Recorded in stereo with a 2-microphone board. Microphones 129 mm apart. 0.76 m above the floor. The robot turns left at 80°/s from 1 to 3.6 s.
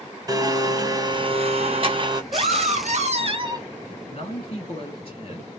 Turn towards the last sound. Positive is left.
turn(degrees=45)  # may be behind; listen again after turning